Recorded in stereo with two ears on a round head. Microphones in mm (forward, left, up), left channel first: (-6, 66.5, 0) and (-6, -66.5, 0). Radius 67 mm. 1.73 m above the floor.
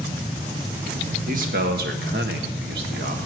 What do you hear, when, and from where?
1.3 s a man speaking: 65° right (ahead or behind), 1.9 m